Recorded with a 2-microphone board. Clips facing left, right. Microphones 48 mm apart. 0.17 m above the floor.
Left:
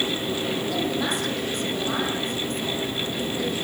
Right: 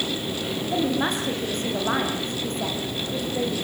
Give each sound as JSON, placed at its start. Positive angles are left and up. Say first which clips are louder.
{"t": 0.7, "sound": "a woman speaking", "louder": "right 5 dB", "side_deg": -30, "distance_m": 7.0}